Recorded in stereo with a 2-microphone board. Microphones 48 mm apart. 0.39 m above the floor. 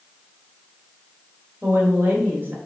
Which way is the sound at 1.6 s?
50° right (ahead or behind).